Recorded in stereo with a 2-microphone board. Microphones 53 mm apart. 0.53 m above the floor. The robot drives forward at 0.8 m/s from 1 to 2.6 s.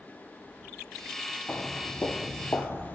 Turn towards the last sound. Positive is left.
turn(degrees=40)  # may be behind; listen again after turning